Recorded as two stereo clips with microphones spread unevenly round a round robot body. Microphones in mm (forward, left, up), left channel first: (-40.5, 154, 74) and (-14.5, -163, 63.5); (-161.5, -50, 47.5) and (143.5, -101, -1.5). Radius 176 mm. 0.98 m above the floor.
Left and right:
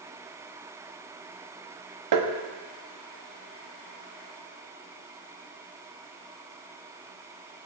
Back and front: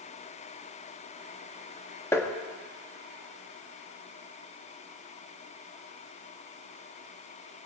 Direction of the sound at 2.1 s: 105° right.